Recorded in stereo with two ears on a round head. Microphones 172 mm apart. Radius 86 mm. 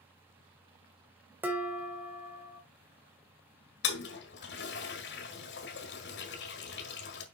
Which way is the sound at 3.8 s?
60° left (ahead or behind).